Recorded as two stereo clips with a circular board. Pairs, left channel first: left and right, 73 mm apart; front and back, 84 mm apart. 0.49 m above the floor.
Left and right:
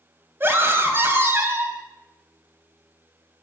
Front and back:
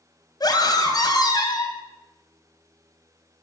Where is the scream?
35° right, 3 m.